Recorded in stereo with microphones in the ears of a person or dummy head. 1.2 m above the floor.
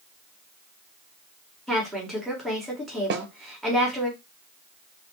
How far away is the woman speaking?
About 2 m.